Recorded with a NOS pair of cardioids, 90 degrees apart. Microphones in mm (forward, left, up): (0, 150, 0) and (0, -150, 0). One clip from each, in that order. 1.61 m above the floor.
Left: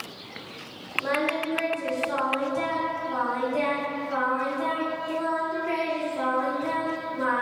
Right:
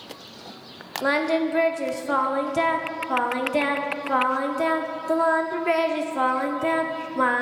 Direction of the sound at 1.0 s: 55° right.